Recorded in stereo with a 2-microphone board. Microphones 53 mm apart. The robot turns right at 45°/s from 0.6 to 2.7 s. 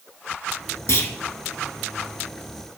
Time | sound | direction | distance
0.9 | a clunk | 75° left (ahead or behind) | 1.6 m